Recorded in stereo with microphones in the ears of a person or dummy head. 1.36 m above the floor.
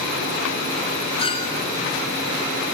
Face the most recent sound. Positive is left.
turn(degrees=25)  # may be behind; listen again after turning